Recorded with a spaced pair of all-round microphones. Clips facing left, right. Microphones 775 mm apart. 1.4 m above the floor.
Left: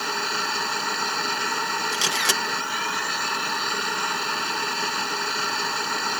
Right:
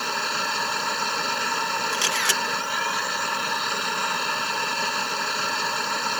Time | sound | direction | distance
0.0 | a machine running | 10° right (ahead or behind) | ?
1.9 | a camera shutter | 75° left (ahead or behind) | ?